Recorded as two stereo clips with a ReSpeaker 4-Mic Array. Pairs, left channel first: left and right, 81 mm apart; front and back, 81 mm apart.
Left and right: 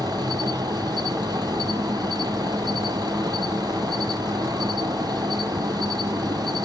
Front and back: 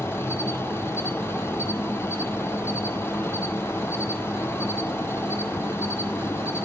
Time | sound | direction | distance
0.0 | an insect | 60° right | 0.7 m